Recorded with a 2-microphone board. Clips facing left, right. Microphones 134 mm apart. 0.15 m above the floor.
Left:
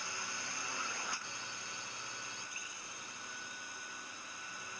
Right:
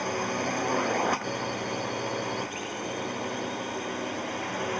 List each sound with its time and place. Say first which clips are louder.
0.0 s a drone: right 18 dB; 65° right (ahead or behind); by 4.8 s 75° right (ahead or behind)